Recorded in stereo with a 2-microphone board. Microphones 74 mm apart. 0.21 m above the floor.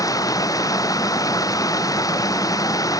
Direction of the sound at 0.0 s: 55° left (ahead or behind).